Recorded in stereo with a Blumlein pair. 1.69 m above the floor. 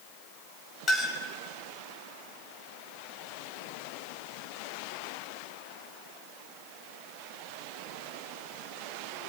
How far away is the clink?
About 5 m.